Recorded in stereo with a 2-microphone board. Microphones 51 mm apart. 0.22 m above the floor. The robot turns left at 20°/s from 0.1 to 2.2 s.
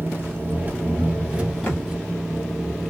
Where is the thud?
35° left (ahead or behind), 1.2 m; by 2.1 s 45° left (ahead or behind), 1.2 m.